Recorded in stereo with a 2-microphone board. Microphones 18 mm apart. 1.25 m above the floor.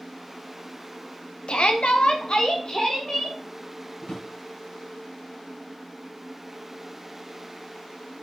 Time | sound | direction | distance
1.5 | a shout | 70° left (ahead or behind) | 1.1 m
4.0 | a drawer | 65° left (ahead or behind) | 3.5 m